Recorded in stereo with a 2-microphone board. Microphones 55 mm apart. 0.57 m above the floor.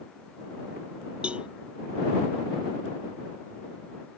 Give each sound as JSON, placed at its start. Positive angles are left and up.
{"t": 1.2, "sound": "a cowbell", "side_deg": -20}